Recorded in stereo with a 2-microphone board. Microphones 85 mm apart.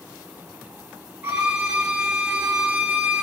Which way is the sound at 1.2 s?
20° right (ahead or behind).